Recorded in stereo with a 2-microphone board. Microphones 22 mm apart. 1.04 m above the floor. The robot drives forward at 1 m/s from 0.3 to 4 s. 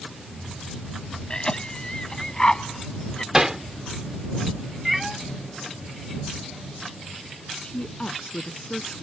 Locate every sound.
1.3 s a cough: 35° left (ahead or behind); by 3.2 s 30° left (ahead or behind)
3.3 s hammering: 25° right (ahead or behind); by 3.6 s 20° right (ahead or behind)
4.8 s a cat meowing: 10° right (ahead or behind)
7.6 s a woman speaking: 55° left (ahead or behind)